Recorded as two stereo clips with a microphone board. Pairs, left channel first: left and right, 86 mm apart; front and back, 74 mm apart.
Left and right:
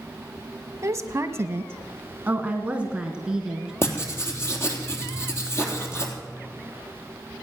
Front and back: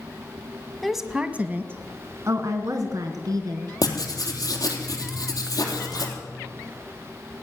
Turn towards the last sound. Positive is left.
turn(degrees=30)